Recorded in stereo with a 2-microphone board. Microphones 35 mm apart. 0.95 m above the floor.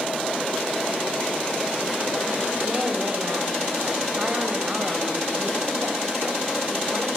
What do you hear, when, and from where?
2.6 s a woman speaking: 30° right (ahead or behind), 4.5 m